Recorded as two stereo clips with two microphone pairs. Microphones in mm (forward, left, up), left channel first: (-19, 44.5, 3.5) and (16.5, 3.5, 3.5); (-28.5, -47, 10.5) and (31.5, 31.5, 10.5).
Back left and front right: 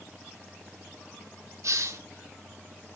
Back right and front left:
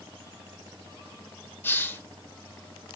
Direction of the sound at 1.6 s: 60° right.